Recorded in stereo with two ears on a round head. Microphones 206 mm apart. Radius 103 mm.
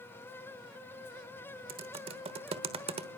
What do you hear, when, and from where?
1.7 s typing on a keyboard: 25° right (ahead or behind), 1.1 m